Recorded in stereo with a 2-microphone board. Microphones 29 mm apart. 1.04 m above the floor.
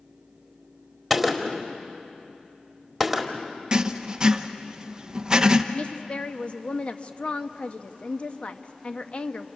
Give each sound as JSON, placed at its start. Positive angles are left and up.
{"t": 1.1, "sound": "a gunshot", "side_deg": 5, "distance_m": 1.7}
{"t": 3.7, "sound": "writing", "side_deg": -25, "distance_m": 0.9}
{"t": 5.7, "sound": "a woman speaking", "side_deg": 45, "distance_m": 1.0}